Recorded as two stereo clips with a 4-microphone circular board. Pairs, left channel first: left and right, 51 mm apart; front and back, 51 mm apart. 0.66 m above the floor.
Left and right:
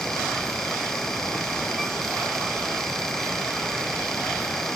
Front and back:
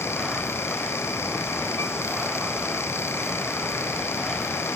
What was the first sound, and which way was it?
Only background noise.